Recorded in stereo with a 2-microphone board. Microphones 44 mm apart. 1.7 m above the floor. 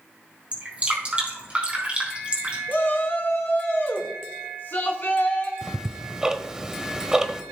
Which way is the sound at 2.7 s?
55° left (ahead or behind).